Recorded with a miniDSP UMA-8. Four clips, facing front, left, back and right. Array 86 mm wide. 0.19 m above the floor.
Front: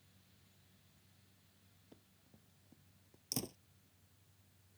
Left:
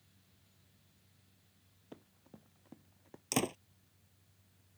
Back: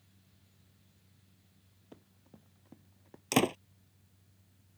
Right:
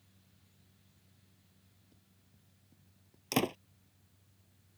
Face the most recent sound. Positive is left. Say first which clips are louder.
# right 3 dB, back 18 dB
turn(degrees=-165)